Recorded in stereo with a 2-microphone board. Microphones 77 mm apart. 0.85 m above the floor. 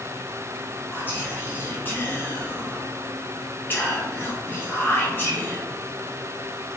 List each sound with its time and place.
0.9 s whispering: 25° left (ahead or behind), 0.8 m